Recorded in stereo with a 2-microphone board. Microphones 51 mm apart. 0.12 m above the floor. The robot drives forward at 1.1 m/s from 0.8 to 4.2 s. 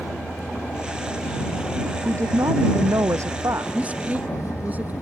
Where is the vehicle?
50° left (ahead or behind); by 5.0 s 70° left (ahead or behind).